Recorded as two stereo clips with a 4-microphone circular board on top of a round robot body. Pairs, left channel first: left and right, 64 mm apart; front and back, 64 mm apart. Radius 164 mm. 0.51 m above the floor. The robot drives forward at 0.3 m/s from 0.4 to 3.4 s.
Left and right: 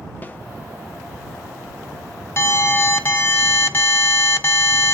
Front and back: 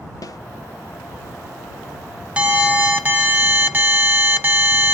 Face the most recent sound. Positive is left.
turn(degrees=130)